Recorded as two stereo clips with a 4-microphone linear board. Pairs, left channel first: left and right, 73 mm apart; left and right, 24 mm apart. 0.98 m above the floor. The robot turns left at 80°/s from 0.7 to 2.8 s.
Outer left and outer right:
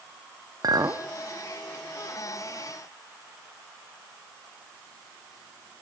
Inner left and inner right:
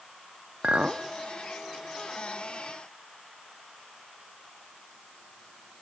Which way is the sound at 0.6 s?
55° right (ahead or behind).